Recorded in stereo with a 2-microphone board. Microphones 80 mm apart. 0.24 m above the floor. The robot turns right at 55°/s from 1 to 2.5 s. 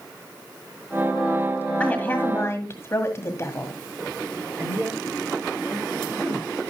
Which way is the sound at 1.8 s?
30° left.